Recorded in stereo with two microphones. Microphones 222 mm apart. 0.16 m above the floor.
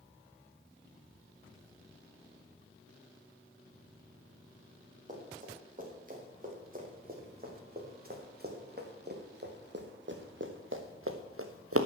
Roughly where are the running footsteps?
Right.